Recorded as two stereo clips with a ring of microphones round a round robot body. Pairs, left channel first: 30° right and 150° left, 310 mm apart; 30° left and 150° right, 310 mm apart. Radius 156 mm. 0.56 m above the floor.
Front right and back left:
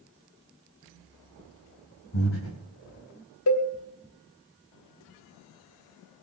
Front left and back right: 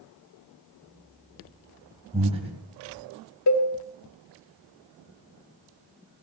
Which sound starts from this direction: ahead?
A cowbell, at 3.5 s.